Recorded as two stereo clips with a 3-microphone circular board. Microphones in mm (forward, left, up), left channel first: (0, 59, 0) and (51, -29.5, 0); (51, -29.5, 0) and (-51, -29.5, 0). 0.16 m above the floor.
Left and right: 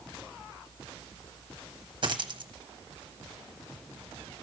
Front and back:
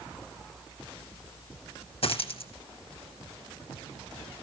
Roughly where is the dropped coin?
Ahead.